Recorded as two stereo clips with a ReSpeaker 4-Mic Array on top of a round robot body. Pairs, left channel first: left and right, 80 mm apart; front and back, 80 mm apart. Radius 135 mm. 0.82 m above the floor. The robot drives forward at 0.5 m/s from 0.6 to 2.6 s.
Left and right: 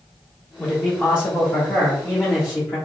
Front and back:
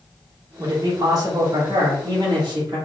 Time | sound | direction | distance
0.6 | a man speaking | 155° left | 1.3 m